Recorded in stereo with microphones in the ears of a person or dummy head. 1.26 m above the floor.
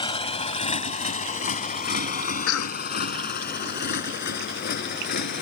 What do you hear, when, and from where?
0.0 s a motorcycle: 25° left (ahead or behind); by 5.4 s 55° left (ahead or behind)
2.5 s a cough: 75° left (ahead or behind)